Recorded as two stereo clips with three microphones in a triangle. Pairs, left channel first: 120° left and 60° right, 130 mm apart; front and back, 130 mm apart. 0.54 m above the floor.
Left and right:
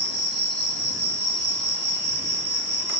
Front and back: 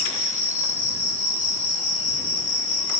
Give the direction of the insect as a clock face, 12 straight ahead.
5 o'clock.